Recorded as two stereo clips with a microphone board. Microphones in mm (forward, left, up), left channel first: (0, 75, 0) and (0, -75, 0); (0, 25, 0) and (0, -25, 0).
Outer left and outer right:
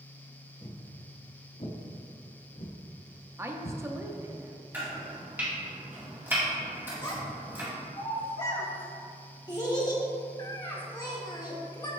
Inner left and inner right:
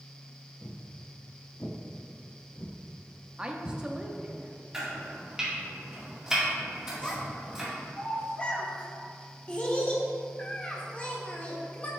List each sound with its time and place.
0.6 s footsteps: 20° left (ahead or behind), 1.4 m; by 3.8 s 70° left (ahead or behind), 2 m
3.4 s a woman speaking: 20° right (ahead or behind), 0.5 m
4.7 s chopping: 15° right (ahead or behind), 2.0 m
7.0 s a child speaking: 25° left (ahead or behind), 1.3 m